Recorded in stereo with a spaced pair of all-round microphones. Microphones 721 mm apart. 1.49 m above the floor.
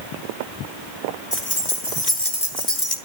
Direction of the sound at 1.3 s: 40° left (ahead or behind).